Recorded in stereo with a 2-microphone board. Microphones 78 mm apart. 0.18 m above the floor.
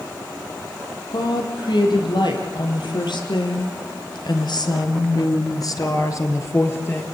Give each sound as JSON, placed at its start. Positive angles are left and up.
{"t": 1.1, "sound": "a woman speaking", "side_deg": 65, "distance_m": 6.5}